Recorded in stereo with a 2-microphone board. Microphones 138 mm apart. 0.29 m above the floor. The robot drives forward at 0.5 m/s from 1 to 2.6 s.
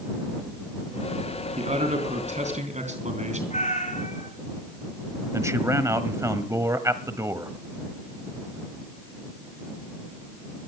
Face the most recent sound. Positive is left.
turn(degrees=-20)  # may be behind; listen again after turning